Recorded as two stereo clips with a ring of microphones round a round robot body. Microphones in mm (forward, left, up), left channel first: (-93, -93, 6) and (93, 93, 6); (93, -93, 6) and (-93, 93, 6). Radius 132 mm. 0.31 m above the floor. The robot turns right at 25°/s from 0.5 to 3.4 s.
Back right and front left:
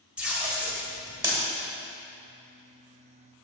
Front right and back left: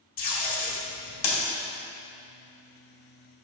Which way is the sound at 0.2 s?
35° right.